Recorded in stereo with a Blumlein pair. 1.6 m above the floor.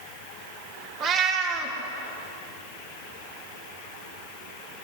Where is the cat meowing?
30° right, 2.5 m.